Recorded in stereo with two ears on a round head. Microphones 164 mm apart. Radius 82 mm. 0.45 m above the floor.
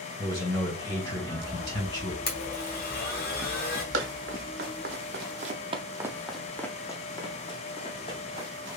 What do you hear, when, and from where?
0.2 s a man speaking: 20° left (ahead or behind), 2.5 m
2.3 s a blender: 55° left (ahead or behind), 1.3 m
3.9 s running footsteps: 60° right (ahead or behind), 1.2 m; by 8.5 s 35° left (ahead or behind), 1.7 m